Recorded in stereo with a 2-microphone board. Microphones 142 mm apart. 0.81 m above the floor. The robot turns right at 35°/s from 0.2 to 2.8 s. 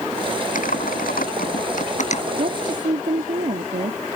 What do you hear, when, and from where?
0.6 s typing on a keyboard: 70° left (ahead or behind); by 2.2 s 50° left (ahead or behind)
2.4 s a woman speaking: 60° right (ahead or behind); by 4.0 s 65° right (ahead or behind)